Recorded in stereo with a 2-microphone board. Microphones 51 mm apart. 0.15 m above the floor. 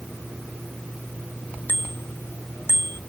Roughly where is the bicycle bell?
Left.